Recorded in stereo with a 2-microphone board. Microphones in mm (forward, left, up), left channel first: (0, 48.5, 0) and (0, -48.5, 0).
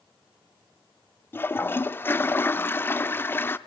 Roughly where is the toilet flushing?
Left.